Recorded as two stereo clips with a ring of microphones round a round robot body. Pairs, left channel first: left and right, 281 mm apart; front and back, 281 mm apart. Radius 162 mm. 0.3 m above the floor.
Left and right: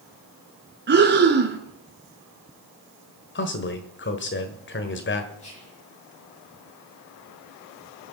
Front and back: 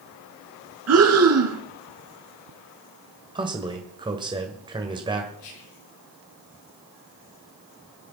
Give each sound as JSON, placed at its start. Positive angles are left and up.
{"t": 0.9, "sound": "breathing", "azimuth_deg": -145, "distance_m": 2.0}
{"t": 3.4, "sound": "a man speaking", "azimuth_deg": 110, "distance_m": 1.5}
{"t": 5.4, "sound": "whispering", "azimuth_deg": 20, "distance_m": 5.0}